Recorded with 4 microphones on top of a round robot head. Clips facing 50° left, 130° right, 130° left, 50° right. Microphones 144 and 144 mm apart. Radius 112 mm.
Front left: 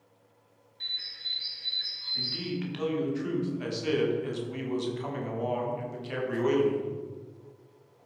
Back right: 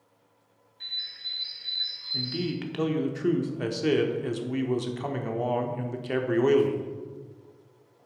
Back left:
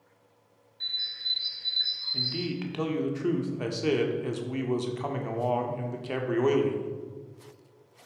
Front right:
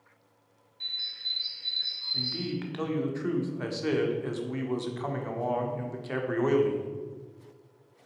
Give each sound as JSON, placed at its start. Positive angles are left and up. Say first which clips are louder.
{"t": 0.8, "sound": "a bird", "louder": "even, back left 2 dB", "azimuth_deg": 15, "distance_m": 1.4}
{"t": 2.1, "sound": "a man speaking", "louder": "back right 4 dB, back left 1 dB", "azimuth_deg": -160, "distance_m": 1.5}